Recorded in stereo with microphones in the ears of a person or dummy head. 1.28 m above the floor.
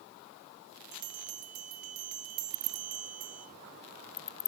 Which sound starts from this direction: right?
A bell, at 0.9 s.